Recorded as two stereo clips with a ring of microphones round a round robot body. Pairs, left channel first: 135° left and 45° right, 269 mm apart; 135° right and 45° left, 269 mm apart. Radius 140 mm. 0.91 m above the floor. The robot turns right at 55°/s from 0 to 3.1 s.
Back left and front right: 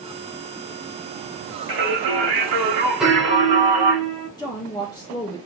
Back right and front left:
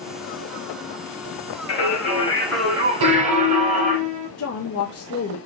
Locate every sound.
1.7 s singing: 95° right, 1.7 m; by 4.0 s 15° right, 1.7 m
3.0 s a piano: 45° left, 1.5 m; by 4.3 s 50° left, 1.5 m
4.4 s a woman speaking: 150° right, 0.8 m